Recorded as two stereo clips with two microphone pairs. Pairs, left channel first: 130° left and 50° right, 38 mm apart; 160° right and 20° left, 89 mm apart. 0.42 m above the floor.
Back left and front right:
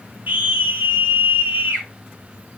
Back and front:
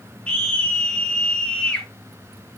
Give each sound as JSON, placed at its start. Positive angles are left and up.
{"t": 0.3, "sound": "a scream", "azimuth_deg": -85, "distance_m": 4.5}